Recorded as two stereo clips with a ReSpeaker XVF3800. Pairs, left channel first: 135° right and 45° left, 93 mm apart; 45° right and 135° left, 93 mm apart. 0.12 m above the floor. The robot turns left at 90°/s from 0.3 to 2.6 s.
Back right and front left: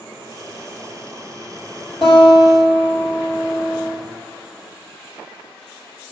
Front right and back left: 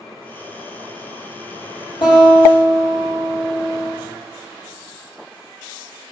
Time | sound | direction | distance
2.0 | a guitar | 55° right | 1.4 m